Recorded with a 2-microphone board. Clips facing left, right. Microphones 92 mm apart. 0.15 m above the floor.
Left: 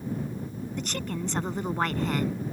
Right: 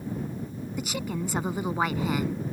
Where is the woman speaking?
5° right (ahead or behind).